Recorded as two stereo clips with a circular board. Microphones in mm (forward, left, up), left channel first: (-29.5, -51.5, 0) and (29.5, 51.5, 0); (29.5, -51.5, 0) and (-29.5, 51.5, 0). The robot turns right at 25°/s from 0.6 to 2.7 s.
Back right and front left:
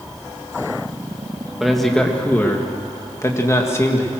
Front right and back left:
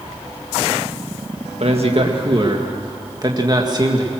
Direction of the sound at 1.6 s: 145° left.